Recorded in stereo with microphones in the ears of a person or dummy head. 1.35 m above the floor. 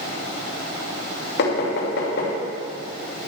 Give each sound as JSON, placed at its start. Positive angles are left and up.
{"t": 1.4, "sound": "knocking", "side_deg": 60, "distance_m": 2.5}